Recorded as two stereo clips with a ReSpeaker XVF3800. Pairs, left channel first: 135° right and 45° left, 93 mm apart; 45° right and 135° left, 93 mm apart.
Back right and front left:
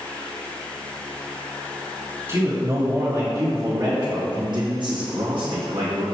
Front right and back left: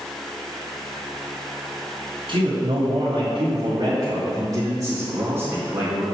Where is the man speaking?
105° left, 3.5 m; by 6.0 s 60° left, 2.5 m.